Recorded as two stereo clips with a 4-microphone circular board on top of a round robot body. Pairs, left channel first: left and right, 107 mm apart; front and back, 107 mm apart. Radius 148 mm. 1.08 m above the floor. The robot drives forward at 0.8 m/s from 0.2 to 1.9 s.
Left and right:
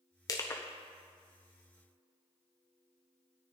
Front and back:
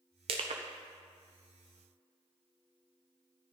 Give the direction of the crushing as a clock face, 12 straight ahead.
7 o'clock.